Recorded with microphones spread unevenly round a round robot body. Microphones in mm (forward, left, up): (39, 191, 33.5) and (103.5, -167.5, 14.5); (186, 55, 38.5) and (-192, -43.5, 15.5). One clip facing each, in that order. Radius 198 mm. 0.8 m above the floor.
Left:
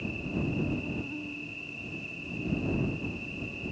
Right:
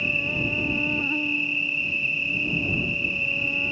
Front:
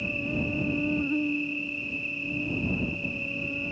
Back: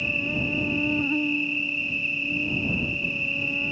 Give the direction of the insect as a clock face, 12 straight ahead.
3 o'clock.